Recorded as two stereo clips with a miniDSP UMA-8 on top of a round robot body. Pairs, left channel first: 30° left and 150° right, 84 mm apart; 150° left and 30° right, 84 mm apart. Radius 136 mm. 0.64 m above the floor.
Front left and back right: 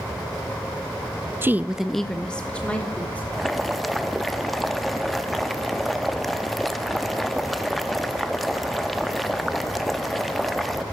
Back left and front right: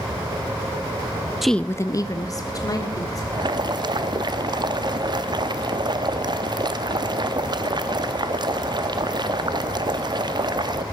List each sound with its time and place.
1.4 s a woman speaking: 115° right, 0.6 m; by 3.2 s 105° left, 2 m
3.3 s boiling: 60° right, 0.7 m